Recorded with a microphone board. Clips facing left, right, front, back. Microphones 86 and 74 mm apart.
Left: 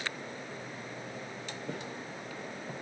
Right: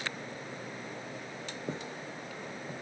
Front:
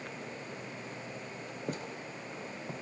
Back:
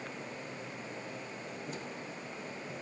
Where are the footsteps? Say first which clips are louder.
Right 2 dB, front 2 dB; 30° right, 2.5 m; by 2.7 s 10° right, 3 m.